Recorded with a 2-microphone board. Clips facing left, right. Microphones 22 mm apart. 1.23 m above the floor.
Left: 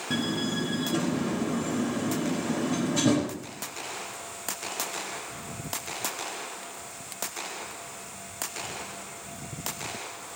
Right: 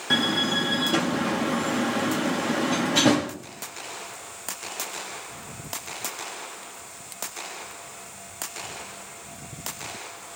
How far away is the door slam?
About 1.2 m.